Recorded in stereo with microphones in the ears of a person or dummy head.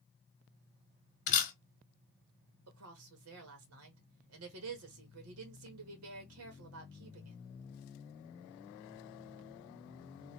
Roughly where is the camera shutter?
Left.